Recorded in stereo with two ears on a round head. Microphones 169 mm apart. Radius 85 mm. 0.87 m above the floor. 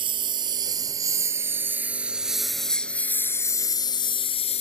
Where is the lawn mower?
25° right (ahead or behind); by 4.6 s 35° left (ahead or behind).